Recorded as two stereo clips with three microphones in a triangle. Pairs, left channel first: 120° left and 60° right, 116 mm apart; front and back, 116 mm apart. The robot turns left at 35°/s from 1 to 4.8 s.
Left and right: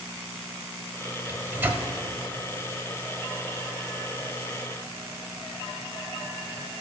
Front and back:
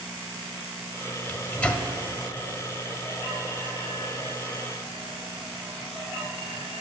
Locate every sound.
1.3 s a microwave: 40° right, 0.7 m; by 1.9 s 60° right, 0.7 m